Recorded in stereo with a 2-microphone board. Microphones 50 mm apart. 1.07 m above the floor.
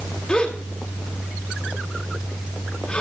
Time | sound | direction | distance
0.3 | a gasp | 25° left (ahead or behind) | 2.5 m